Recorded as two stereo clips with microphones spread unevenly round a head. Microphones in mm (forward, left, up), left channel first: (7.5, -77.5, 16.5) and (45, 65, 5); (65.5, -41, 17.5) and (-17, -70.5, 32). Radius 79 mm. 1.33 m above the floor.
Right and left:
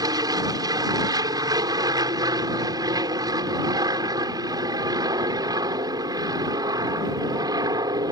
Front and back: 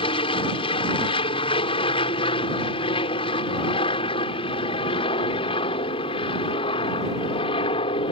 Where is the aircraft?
10° left.